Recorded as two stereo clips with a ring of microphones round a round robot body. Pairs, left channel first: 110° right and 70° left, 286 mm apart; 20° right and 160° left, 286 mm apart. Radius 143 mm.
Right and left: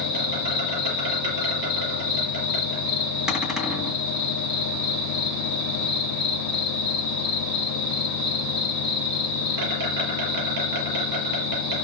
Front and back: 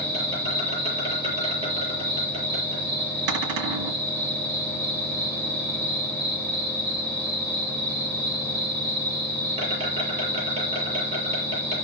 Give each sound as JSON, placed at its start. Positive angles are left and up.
{"t": 0.0, "sound": "an insect", "azimuth_deg": 90, "distance_m": 7.5}
{"t": 3.3, "sound": "a cupboard door", "azimuth_deg": 155, "distance_m": 2.0}